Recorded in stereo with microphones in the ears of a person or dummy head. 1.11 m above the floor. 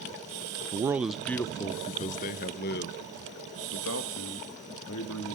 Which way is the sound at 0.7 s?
25° right (ahead or behind).